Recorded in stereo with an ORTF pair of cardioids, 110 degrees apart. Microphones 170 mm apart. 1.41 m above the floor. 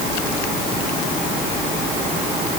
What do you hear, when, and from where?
Only background noise.